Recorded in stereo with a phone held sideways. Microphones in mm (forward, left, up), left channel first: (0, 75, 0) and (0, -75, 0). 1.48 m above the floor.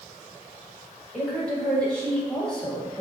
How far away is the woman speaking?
About 2.5 m.